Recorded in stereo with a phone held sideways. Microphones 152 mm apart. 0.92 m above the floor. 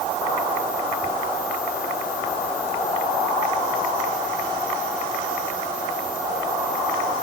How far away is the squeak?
I don't hear a squeak.